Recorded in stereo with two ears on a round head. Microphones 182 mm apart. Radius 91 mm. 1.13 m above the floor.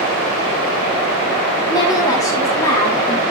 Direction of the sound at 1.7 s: 20° left (ahead or behind).